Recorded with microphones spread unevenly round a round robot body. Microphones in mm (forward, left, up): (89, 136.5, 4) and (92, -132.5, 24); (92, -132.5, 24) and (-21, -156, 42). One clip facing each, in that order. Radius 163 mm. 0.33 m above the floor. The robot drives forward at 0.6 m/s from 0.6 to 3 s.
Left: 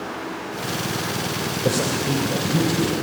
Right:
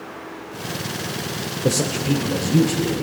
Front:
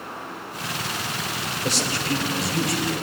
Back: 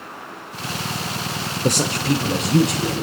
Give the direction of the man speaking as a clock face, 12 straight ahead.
5 o'clock.